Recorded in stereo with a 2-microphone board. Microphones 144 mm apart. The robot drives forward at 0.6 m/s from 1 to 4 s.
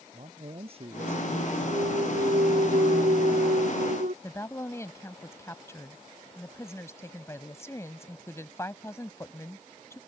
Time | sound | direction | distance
0.1 | a man speaking | 40° right (ahead or behind) | ?
1.7 | a clunk | 60° right (ahead or behind) | ?
4.2 | a woman speaking | 20° left (ahead or behind) | ?